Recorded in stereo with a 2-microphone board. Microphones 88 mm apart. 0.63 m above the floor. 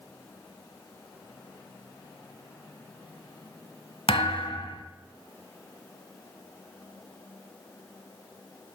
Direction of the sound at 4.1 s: 75° left (ahead or behind).